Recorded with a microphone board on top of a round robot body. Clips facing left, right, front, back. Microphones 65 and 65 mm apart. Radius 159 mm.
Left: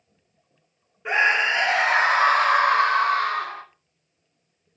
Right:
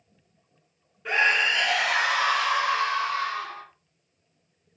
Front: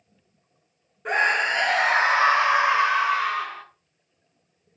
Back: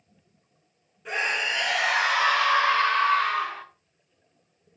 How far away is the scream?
About 1.8 m.